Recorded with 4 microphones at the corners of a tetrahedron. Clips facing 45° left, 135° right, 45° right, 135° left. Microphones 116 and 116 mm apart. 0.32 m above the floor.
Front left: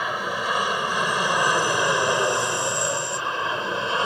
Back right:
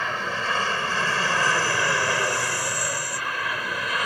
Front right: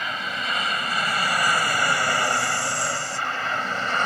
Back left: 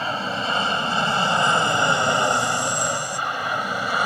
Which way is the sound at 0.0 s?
115° left.